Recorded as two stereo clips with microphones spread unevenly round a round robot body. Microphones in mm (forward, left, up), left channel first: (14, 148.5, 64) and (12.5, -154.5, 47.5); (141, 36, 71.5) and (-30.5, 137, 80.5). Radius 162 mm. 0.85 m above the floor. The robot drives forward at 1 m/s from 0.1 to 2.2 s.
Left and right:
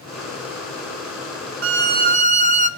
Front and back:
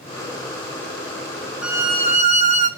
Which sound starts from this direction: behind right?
A violin, at 1.6 s.